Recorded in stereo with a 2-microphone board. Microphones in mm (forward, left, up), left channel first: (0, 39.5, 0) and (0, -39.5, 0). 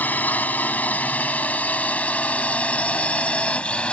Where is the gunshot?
I don't hear a gunshot.